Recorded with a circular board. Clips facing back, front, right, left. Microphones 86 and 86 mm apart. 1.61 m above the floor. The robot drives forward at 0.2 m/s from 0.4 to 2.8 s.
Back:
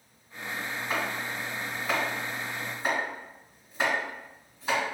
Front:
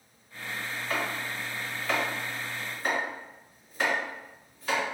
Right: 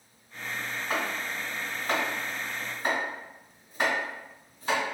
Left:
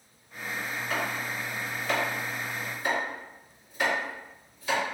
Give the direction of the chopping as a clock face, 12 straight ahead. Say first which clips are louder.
Even, right 1 dB; 4 o'clock.